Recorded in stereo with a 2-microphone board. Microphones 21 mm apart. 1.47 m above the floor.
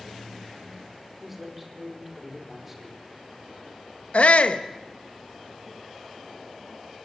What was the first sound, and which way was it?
A man speaking, 10° right (ahead or behind).